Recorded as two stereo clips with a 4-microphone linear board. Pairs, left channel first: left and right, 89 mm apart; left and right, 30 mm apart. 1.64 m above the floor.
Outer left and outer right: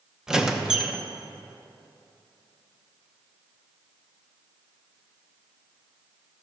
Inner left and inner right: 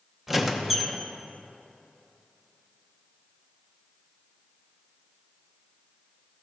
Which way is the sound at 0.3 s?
5° right (ahead or behind).